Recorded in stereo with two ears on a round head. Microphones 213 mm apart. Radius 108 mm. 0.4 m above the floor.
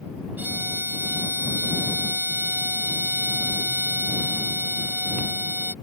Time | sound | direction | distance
0.4 | a violin | 10° right (ahead or behind) | ?